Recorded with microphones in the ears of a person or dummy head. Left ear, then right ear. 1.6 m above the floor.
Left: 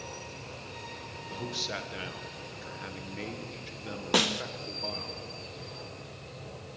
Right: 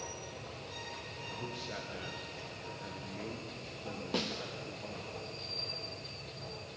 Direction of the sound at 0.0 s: 30° right (ahead or behind).